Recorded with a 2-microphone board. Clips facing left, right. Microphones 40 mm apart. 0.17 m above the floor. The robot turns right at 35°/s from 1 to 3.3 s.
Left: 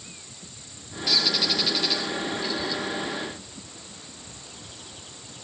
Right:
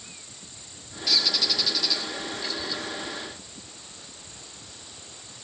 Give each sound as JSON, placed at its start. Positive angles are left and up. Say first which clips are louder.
{"t": 1.1, "sound": "a bird", "louder": "left 1 dB", "side_deg": 5, "distance_m": 7.0}